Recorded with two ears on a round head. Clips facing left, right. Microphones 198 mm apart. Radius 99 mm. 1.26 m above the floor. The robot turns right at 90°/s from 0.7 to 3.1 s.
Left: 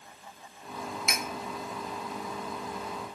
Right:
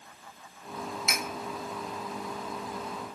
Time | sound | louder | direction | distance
1.1 | cutlery clinking | even | centre (ahead or behind) | 0.6 m